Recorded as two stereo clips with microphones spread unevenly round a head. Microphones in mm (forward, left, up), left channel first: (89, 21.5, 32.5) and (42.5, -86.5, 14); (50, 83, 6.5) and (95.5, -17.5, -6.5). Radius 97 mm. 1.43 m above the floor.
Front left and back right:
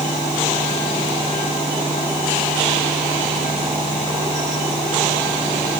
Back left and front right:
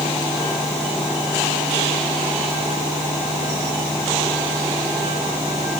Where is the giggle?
I don't hear a giggle.